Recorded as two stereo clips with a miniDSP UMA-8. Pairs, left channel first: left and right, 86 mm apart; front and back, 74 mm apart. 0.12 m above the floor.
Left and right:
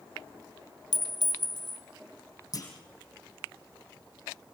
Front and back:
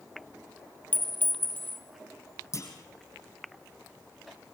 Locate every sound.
0.9 s a clink: 60° left, 2.5 m
2.5 s a clunk: 45° left, 4.5 m